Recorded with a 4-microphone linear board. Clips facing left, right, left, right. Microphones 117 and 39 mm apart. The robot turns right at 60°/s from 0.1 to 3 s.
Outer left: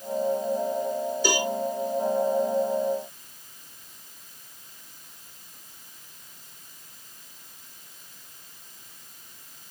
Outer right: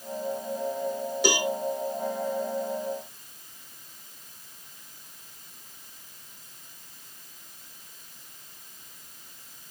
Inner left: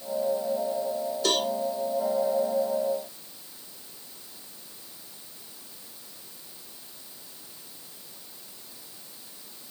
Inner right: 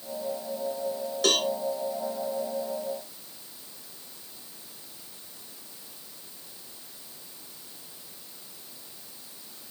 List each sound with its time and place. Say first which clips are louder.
1.2 s a cowbell: outer right 2 dB, inner right 2 dB; 70° right (ahead or behind), 1.9 m